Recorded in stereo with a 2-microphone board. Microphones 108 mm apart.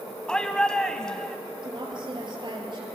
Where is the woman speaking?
45° right (ahead or behind), 4 m.